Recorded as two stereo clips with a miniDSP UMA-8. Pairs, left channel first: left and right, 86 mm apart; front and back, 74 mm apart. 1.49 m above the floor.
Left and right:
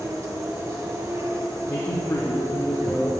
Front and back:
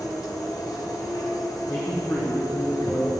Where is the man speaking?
45° left, 1.0 m.